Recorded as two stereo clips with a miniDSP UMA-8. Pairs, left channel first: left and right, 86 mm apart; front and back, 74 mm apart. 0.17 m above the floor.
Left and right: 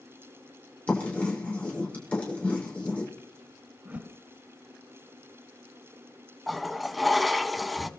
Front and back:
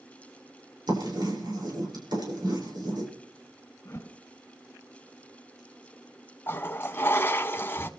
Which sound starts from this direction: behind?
Writing, at 0.9 s.